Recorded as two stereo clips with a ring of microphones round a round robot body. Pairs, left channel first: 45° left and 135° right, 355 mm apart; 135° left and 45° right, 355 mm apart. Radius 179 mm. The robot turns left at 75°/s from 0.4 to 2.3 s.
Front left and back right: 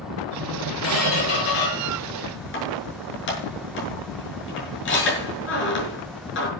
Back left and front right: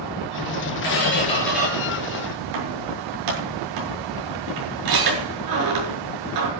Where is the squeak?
95° left, 7 m; by 6.5 s 15° right, 7 m.